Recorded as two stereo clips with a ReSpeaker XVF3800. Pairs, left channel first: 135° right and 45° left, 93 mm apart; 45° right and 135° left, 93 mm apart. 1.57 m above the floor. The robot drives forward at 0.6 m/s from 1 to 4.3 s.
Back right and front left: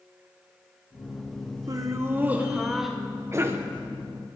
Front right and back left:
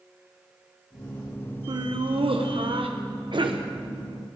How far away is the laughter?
About 0.9 m.